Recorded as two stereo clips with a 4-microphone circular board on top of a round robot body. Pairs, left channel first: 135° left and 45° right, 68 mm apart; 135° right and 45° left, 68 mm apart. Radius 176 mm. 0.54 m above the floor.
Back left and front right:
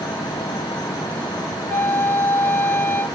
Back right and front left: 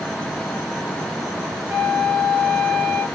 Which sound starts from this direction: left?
A flute, at 1.7 s.